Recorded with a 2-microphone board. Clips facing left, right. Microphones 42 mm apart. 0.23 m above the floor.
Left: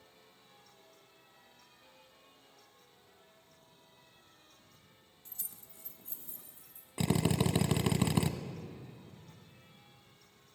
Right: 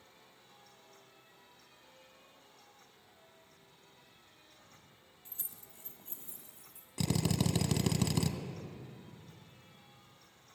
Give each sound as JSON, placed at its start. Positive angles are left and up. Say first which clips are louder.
{"t": 5.2, "sound": "keys jangling", "louder": "right 1 dB", "side_deg": -30, "distance_m": 1.0}
{"t": 7.0, "sound": "a drill", "louder": "left 2 dB", "side_deg": 25, "distance_m": 0.6}